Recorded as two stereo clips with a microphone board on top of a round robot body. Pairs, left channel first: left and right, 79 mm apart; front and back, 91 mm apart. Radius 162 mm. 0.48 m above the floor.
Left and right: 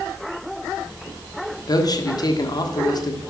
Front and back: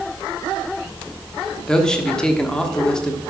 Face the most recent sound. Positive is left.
turn(degrees=80)